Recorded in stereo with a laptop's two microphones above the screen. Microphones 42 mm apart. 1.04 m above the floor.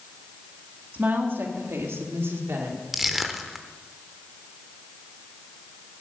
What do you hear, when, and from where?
0.9 s a woman speaking: 40° right (ahead or behind), 2.0 m; by 2.8 s 70° right (ahead or behind), 3 m
2.9 s crushing: 5° right (ahead or behind), 0.8 m